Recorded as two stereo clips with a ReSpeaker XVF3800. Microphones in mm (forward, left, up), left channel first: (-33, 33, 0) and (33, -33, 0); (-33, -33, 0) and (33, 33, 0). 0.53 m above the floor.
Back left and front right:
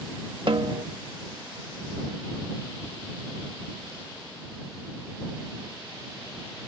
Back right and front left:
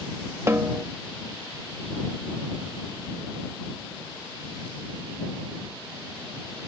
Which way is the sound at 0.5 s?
15° right.